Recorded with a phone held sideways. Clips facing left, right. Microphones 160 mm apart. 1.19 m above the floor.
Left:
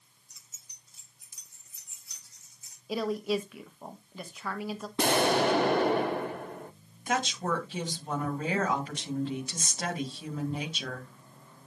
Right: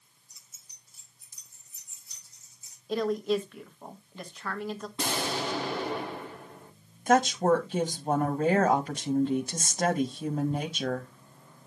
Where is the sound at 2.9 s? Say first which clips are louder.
Right 2 dB; 5° left (ahead or behind), 1.4 m.